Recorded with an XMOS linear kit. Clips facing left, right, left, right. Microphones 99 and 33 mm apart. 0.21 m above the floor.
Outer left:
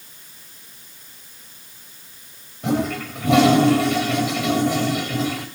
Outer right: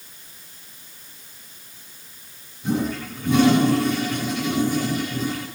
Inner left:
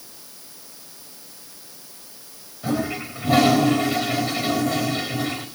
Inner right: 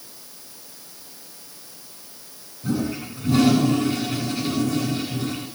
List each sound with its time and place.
2.6 s a toilet flushing: 75° left (ahead or behind), 5 m